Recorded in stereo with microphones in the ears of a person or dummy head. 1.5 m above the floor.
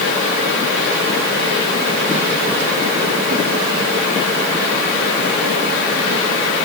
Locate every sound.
Only background noise.